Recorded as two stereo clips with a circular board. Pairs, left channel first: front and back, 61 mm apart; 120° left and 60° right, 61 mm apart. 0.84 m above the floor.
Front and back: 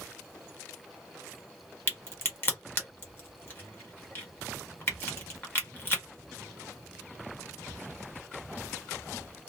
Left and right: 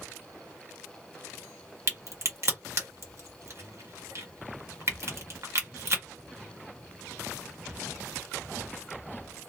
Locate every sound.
1.9 s a crack: 45° right, 1.2 m